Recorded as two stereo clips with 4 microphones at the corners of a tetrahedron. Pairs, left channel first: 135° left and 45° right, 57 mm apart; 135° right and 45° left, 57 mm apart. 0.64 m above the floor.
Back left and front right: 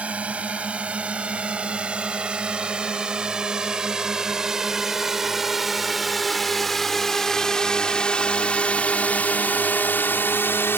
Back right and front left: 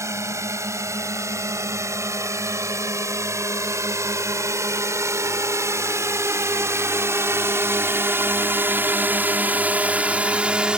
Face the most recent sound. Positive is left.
turn(degrees=115)